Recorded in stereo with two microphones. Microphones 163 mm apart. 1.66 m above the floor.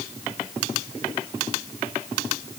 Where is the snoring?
I don't hear snoring.